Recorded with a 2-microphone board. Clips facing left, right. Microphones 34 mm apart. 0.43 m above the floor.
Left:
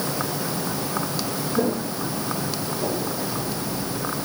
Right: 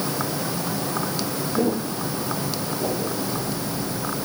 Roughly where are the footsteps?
Centre.